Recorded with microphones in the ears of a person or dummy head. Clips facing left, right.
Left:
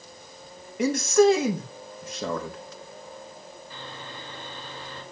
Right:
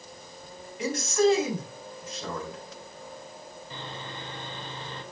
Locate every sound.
0.8 s a man speaking: 50° left (ahead or behind), 1.8 m
3.7 s sawing: 20° right (ahead or behind), 3 m